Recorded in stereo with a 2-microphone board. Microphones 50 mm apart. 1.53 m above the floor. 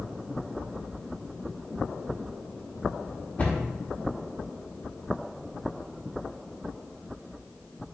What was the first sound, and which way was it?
A cupboard door, 35° left (ahead or behind).